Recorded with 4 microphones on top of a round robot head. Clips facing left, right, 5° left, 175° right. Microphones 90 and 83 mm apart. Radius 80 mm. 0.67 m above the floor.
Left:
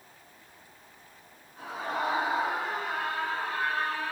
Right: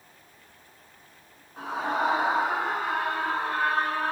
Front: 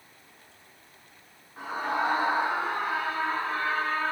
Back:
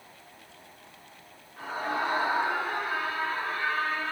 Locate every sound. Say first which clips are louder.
1.6 s a scream: right 5 dB, front 2 dB; 70° right, 9.5 m; by 4.1 s 55° right, 7.5 m